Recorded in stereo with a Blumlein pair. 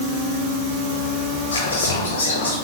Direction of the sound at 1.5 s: 60° left.